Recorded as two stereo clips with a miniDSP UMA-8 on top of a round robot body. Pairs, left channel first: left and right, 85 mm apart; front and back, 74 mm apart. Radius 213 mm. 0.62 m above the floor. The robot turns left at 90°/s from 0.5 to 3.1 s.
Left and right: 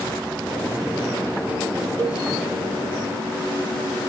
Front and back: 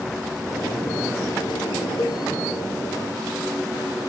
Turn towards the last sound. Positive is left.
turn(degrees=-140)